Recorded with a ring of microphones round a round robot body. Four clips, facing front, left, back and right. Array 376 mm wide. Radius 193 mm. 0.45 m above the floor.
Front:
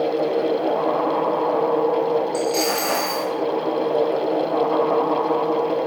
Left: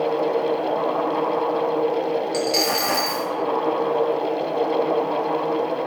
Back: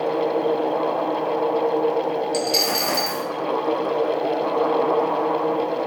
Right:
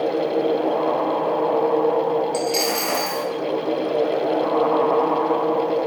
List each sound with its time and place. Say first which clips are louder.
2.3 s a dropped coin: even, front 2 dB; 160° left, 0.6 m